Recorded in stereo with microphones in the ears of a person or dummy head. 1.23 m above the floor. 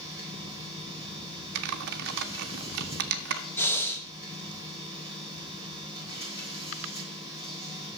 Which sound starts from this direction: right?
Typing on a keyboard, at 1.6 s.